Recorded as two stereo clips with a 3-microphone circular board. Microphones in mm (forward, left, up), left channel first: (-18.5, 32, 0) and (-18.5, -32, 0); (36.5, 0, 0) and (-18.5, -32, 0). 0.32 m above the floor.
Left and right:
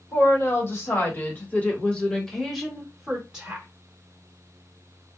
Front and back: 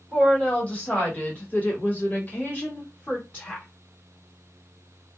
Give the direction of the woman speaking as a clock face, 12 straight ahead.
9 o'clock.